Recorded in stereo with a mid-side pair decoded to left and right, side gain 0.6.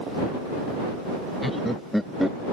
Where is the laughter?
5° left.